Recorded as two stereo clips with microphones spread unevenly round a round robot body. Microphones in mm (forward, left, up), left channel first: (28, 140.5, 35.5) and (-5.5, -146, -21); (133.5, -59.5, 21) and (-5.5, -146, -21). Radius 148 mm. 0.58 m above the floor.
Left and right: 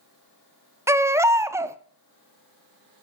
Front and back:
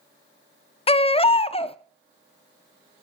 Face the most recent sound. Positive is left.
turn(degrees=-30)